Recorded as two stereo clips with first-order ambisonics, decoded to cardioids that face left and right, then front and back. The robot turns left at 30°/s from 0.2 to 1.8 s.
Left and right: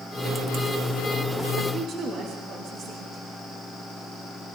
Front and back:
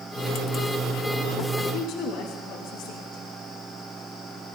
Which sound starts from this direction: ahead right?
A woman speaking, at 1.7 s.